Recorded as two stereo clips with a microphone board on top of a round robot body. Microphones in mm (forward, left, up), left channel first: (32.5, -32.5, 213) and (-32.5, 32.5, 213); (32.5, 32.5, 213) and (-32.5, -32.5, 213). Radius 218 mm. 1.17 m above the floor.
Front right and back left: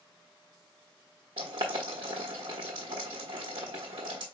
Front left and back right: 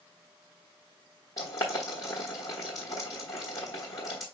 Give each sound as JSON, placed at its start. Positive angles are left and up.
{"t": 1.4, "sound": "boiling", "azimuth_deg": 100, "distance_m": 0.8}